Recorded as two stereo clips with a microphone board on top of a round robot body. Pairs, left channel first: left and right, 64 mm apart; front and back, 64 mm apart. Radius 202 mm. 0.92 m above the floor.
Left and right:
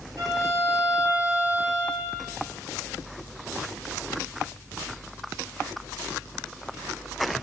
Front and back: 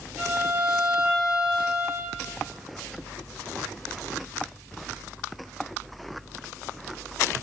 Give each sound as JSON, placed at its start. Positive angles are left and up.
{"t": 0.2, "sound": "a violin", "azimuth_deg": -100, "distance_m": 3.5}